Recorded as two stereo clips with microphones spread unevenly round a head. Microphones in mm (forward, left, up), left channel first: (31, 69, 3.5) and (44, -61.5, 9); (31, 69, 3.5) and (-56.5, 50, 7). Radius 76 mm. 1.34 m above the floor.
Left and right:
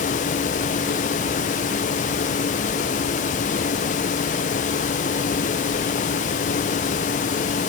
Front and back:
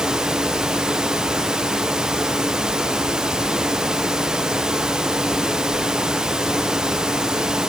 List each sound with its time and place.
Only background noise.